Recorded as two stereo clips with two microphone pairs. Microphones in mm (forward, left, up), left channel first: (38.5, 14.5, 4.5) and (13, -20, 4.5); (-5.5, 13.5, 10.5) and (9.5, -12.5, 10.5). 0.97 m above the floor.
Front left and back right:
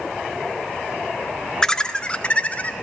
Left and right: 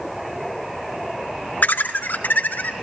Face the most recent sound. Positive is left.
turn(degrees=105)